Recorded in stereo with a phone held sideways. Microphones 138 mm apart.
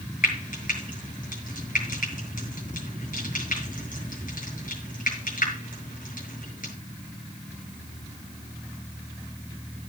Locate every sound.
0.2 s frying: 80° left, 6 m